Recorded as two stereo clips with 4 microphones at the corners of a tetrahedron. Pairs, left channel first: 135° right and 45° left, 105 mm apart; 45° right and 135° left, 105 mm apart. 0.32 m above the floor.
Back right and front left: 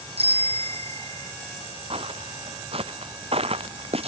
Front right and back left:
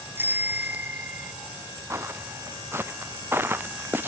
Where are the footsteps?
70° left; by 4.1 s 65° left.